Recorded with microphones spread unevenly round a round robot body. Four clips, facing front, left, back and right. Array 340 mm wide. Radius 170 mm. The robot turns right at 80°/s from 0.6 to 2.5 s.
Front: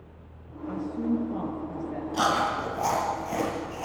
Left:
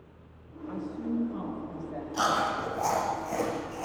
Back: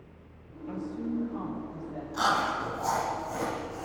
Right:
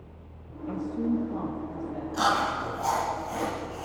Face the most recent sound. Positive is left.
turn(degrees=20)